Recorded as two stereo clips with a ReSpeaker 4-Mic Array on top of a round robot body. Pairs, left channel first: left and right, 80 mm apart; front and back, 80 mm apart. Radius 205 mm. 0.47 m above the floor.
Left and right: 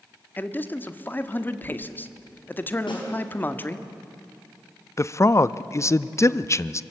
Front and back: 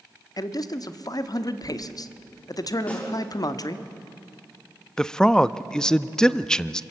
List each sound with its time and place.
0.4 s a man speaking: 30° left, 1.2 m
2.9 s a snare drum: 70° left, 6 m
5.0 s a man speaking: 75° left, 0.7 m